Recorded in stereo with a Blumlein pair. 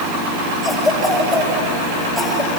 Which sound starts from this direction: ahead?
A cough, at 0.6 s.